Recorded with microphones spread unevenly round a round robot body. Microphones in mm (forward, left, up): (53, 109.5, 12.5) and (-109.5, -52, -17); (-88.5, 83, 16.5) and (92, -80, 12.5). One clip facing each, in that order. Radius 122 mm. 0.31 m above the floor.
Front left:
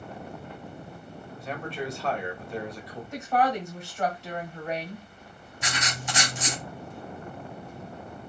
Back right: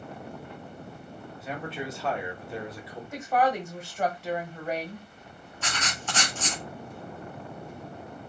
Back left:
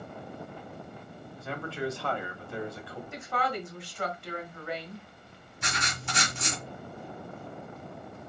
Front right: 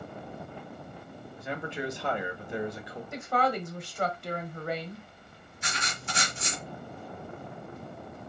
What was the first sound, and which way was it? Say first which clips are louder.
A man speaking: front left 1 dB, even; 75° right.